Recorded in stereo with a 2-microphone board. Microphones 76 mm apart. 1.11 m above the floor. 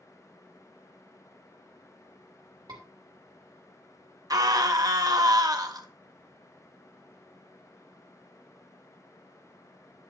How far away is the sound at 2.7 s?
About 2.5 m.